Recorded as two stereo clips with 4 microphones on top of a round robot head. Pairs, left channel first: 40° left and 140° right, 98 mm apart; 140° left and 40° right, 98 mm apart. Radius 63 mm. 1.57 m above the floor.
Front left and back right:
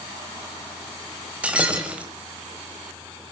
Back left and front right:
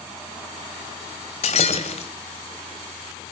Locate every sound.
1.4 s breaking glass: 140° left, 1.8 m